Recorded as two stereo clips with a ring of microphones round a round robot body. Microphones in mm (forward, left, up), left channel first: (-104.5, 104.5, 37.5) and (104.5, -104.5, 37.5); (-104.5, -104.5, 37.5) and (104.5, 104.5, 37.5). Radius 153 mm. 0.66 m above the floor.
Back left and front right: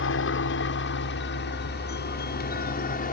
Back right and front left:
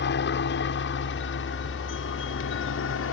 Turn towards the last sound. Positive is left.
turn(degrees=-170)